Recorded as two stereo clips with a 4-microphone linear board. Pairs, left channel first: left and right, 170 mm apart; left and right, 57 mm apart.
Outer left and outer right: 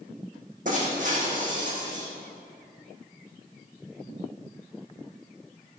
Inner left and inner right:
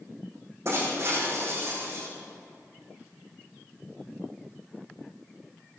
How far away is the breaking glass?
About 5.5 m.